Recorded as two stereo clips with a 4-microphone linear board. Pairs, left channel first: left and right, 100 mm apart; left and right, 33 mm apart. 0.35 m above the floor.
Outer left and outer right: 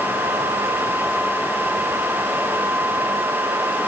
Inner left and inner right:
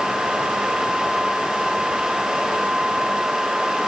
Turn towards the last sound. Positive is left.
No sound to turn to.